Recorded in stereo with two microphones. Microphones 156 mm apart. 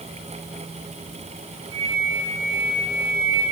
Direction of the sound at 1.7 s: 35° right (ahead or behind).